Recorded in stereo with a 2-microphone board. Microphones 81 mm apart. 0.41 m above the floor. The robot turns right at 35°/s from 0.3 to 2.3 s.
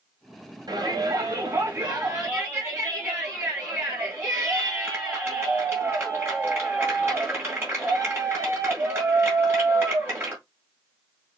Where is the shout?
90° right, 2 m; by 10.4 s 35° right, 2 m.